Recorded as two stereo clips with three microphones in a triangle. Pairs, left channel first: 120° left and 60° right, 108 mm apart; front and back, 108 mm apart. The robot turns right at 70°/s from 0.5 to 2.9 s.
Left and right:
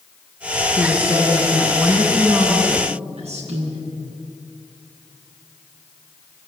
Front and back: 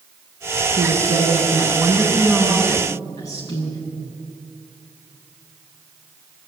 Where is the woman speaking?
150° left, 9 m; by 3.9 s 60° right, 9 m.